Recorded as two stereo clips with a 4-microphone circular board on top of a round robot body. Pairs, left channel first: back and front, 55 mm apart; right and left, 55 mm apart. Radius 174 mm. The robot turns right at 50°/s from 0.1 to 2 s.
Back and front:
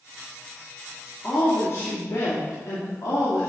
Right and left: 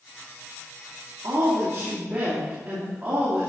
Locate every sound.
1.2 s a woman speaking: 110° left, 2.5 m; by 3.5 s 150° left, 2.5 m